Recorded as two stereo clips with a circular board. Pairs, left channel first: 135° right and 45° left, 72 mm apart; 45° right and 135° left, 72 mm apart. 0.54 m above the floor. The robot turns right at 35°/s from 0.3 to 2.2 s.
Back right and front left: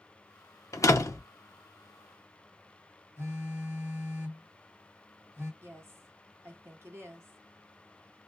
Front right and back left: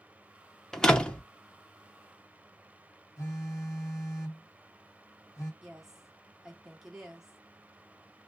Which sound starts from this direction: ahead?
A phone buzzing, at 3.2 s.